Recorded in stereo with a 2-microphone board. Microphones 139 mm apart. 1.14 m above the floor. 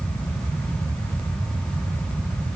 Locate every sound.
Only background noise.